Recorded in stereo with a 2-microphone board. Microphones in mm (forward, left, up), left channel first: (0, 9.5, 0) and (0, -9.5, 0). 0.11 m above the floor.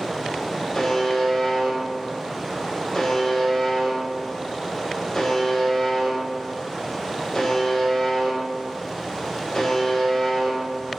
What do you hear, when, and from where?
0.8 s a buzzer: 20° left (ahead or behind), 1.3 m